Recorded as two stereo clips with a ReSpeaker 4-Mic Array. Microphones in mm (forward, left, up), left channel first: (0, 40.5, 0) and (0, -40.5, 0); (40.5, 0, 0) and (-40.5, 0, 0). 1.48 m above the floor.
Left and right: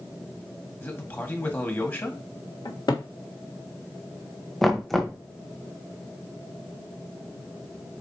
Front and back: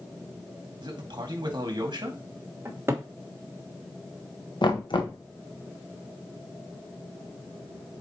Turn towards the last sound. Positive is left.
turn(degrees=5)